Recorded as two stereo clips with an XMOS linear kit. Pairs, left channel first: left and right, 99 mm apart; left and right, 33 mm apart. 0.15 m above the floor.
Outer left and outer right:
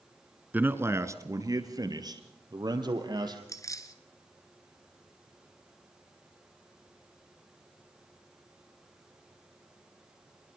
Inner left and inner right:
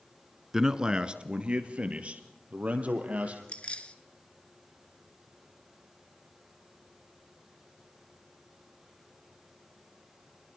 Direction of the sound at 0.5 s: 15° right (ahead or behind).